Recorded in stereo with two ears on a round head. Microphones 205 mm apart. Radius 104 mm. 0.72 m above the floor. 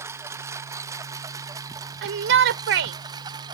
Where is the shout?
55° right (ahead or behind).